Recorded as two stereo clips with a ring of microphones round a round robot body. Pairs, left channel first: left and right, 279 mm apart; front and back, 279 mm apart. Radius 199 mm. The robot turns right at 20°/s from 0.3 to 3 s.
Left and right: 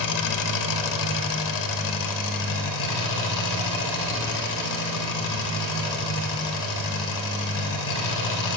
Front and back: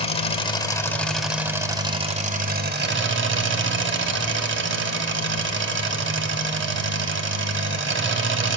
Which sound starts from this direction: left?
An engine running, at 0.0 s.